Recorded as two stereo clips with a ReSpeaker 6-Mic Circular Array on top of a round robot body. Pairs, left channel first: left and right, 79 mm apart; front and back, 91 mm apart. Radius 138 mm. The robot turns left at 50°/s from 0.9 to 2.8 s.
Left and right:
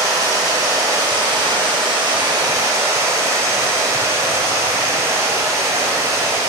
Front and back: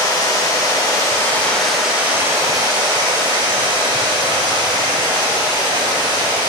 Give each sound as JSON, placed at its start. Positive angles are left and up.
{"t": 0.0, "sound": "running water", "azimuth_deg": -50, "distance_m": 3.0}